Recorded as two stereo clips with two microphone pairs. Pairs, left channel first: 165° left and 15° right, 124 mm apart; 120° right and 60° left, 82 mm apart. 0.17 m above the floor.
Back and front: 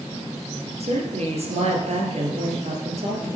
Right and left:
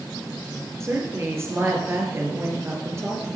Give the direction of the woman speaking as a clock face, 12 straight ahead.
12 o'clock.